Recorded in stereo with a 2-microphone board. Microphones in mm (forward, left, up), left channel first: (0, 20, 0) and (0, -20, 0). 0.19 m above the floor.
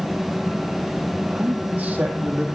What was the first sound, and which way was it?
A man speaking, 35° right (ahead or behind).